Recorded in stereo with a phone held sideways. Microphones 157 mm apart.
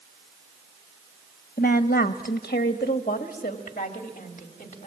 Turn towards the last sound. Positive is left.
turn(degrees=45)  # may be behind; listen again after turning